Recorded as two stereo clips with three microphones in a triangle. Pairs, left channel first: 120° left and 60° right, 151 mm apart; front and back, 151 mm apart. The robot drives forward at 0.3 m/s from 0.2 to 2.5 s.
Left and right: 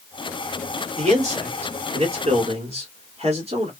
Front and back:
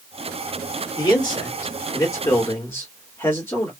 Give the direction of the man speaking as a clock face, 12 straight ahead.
2 o'clock.